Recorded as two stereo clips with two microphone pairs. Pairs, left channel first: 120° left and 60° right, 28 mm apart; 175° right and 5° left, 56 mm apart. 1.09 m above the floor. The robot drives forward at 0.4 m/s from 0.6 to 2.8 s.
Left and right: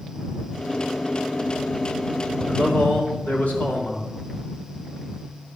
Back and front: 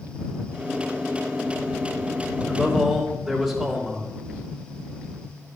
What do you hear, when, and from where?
2.5 s a man speaking: 90° left, 3.5 m; by 4.1 s 95° left, 3.5 m